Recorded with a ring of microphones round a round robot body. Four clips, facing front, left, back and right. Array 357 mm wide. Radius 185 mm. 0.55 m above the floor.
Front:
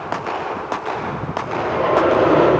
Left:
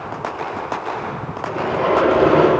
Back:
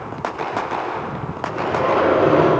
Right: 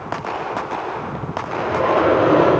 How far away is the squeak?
About 5 m.